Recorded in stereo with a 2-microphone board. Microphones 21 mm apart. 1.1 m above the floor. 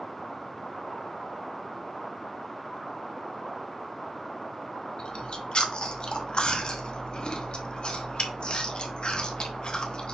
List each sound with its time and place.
5.0 s chewing: 50° left (ahead or behind), 0.8 m